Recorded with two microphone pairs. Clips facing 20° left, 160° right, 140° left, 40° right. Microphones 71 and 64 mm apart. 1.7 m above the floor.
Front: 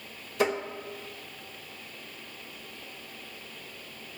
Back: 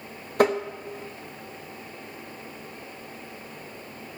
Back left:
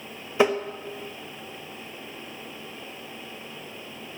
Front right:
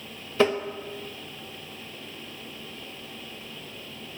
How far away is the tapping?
About 0.7 m.